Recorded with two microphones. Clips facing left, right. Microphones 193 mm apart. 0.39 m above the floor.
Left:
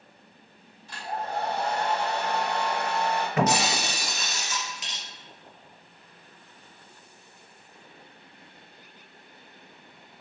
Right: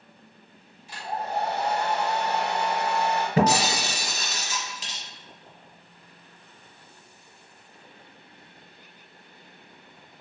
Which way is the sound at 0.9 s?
15° right (ahead or behind).